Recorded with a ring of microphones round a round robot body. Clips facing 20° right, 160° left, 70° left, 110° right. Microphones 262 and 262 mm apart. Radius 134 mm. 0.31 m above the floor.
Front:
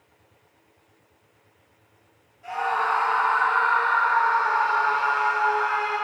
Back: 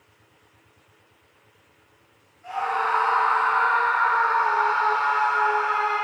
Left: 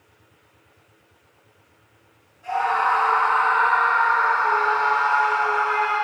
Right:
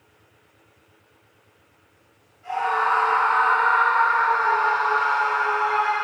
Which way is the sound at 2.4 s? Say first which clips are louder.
Even, left 1 dB; 10° left.